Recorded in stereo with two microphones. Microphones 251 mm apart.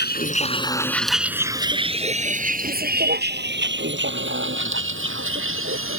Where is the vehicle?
40° left (ahead or behind); by 6.0 s 55° right (ahead or behind).